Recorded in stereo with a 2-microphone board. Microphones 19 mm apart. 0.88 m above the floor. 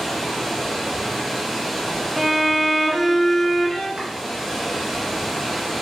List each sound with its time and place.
0.0 s running water: 10° right (ahead or behind), 1.1 m
2.2 s a violin: centre (ahead or behind), 0.9 m
4.0 s chopping: 65° right (ahead or behind), 0.7 m